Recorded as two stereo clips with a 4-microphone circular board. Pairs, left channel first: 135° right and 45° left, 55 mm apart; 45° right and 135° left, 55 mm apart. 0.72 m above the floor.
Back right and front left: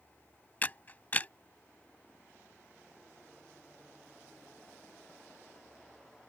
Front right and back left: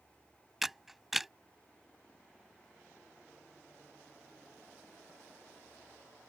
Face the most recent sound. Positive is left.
turn(degrees=-145)